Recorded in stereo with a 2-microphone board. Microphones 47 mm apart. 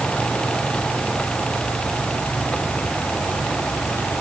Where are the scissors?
I don't hear scissors.